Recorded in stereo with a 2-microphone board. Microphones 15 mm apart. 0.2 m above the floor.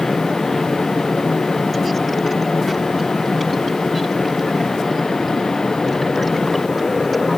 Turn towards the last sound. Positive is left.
No sound to turn to.